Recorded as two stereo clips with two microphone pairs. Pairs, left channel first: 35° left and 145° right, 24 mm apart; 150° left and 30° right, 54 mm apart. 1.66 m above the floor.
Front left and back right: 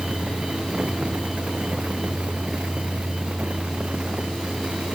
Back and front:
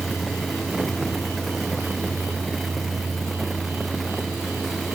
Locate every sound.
Only background noise.